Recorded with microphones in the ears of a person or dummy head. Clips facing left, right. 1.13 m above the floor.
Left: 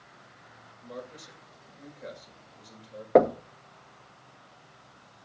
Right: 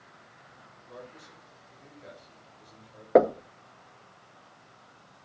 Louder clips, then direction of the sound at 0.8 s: Left 5 dB; 60° left (ahead or behind).